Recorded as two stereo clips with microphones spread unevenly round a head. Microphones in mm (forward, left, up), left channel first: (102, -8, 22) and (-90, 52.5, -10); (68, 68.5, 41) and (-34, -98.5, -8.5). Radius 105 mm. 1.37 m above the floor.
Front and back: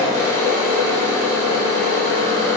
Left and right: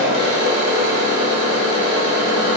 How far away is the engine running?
About 2 m.